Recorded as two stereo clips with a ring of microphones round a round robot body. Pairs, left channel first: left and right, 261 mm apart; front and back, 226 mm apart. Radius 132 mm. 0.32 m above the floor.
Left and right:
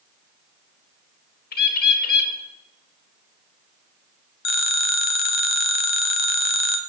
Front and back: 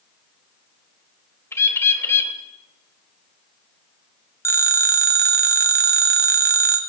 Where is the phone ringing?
75° left, 1.6 m.